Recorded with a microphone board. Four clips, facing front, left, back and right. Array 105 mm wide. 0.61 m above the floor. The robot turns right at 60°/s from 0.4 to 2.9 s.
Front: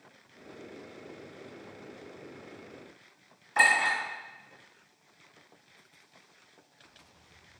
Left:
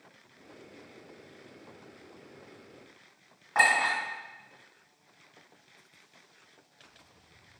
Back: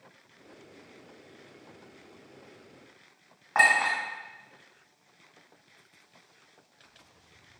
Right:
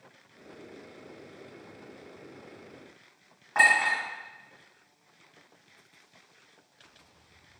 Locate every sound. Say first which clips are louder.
3.5 s a clink: right 1 dB, back 2 dB; 175° left, 1.8 m